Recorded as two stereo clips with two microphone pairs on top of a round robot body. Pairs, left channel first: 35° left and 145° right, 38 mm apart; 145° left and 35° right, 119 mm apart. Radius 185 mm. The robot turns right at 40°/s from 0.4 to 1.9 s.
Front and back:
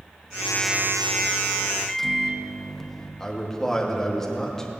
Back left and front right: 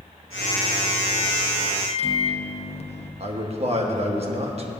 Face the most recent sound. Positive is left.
turn(degrees=-50)